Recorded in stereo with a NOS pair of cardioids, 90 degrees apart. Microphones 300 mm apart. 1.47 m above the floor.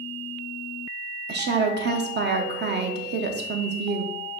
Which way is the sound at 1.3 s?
35° right.